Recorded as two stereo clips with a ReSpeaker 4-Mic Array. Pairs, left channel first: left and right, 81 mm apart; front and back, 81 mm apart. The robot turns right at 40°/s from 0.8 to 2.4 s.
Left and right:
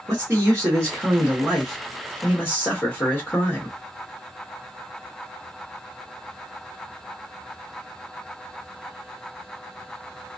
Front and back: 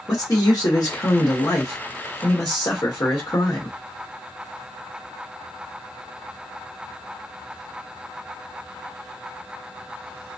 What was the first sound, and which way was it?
A man speaking, 35° right.